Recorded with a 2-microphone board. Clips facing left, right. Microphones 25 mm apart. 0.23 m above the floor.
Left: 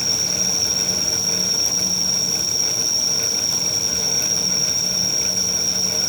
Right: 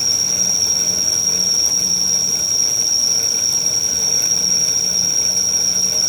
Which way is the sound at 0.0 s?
65° right (ahead or behind).